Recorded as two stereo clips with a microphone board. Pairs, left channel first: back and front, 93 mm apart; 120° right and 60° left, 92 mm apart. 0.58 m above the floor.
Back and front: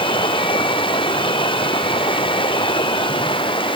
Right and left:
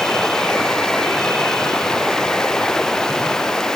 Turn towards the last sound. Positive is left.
turn(degrees=155)